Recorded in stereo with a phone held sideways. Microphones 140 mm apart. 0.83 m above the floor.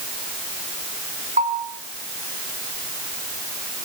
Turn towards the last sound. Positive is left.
turn(degrees=-65)  # may be behind; listen again after turning